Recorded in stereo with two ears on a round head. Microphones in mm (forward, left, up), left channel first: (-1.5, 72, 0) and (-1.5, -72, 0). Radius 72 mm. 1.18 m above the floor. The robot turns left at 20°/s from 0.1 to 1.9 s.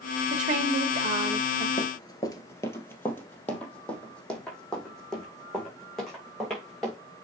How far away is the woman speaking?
About 1.8 m.